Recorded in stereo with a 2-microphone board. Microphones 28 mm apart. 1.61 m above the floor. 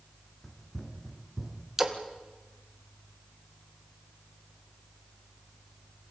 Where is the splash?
15° right (ahead or behind), 1.8 m.